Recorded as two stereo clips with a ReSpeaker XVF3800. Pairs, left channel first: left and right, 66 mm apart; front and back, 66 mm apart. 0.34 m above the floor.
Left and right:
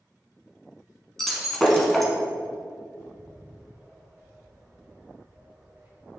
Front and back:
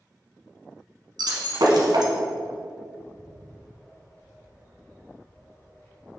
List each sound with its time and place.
1.2 s breaking glass: 175° left, 1.3 m
3.0 s a bird: 50° right, 2 m